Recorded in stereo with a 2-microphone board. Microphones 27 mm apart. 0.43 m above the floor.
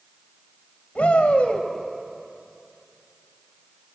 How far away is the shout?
About 2.5 m.